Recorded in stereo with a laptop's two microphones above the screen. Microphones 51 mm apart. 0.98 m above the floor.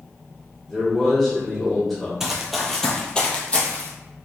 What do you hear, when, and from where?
0.7 s a man speaking: centre (ahead or behind), 1.2 m
2.2 s running footsteps: 5° right (ahead or behind), 1.0 m; by 3.9 s 35° left (ahead or behind), 1.4 m